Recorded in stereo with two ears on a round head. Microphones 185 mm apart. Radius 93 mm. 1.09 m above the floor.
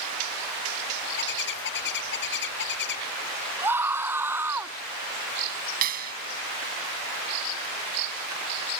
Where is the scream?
10° right (ahead or behind).